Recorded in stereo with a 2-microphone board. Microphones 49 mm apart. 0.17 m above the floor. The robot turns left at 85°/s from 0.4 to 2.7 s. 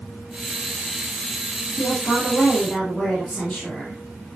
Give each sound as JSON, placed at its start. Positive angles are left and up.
{"t": 1.8, "sound": "a woman speaking", "azimuth_deg": 90, "distance_m": 4.0}